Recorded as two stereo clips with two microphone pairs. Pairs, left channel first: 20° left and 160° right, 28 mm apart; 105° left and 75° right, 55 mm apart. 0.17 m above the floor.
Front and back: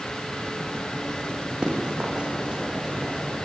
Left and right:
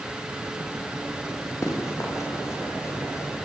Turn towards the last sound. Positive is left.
turn(degrees=130)